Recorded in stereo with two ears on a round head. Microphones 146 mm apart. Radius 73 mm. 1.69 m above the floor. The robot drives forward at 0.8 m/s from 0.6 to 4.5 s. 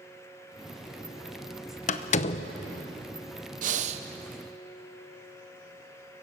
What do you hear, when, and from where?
1.9 s a door slam: 45° left (ahead or behind), 0.8 m; by 2.5 s 35° left (ahead or behind), 1.0 m
3.6 s breathing: 50° right (ahead or behind), 0.9 m; by 4.0 s 40° right (ahead or behind), 1.1 m